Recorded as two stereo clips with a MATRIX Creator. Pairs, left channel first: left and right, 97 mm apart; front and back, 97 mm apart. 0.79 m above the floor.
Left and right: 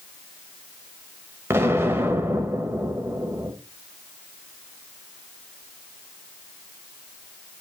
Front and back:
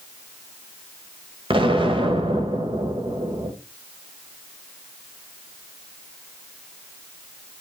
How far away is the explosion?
About 1.7 m.